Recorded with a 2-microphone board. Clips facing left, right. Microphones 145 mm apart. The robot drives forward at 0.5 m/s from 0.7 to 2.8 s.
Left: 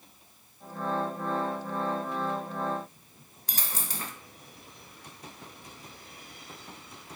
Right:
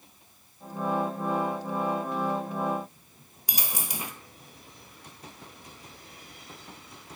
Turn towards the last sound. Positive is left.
turn(degrees=-15)  # may be behind; listen again after turning